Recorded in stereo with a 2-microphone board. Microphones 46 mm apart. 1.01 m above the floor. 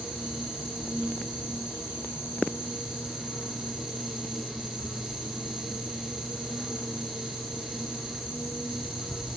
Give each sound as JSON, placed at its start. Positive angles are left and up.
{"t": 0.0, "sound": "an insect", "side_deg": 60, "distance_m": 8.5}